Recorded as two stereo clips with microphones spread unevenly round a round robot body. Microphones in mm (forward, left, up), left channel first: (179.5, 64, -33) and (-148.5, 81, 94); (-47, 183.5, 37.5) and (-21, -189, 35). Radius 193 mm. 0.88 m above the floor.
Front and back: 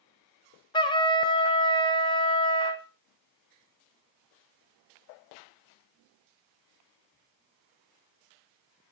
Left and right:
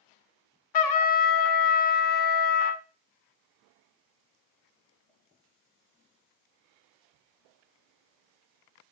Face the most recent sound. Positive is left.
turn(degrees=90)